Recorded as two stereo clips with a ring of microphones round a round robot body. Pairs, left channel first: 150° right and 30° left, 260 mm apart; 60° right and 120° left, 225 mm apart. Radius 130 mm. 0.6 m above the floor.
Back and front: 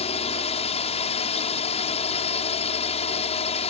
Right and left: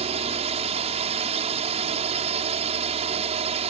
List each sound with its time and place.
0.0 s a drone: 160° left